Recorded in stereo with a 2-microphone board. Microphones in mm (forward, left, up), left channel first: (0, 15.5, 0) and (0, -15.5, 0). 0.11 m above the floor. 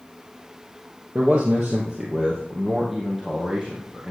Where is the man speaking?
20° right (ahead or behind), 2.0 m; by 4.1 s centre (ahead or behind), 4 m.